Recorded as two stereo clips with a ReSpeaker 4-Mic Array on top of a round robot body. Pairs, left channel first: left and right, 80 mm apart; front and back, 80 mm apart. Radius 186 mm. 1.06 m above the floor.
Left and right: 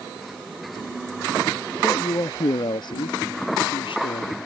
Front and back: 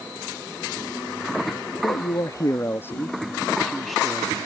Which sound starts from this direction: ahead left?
A man speaking, at 1.8 s.